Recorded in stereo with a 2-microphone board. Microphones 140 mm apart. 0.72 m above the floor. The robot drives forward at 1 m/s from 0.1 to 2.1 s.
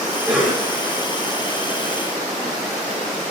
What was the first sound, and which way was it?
A cough, 10° right (ahead or behind).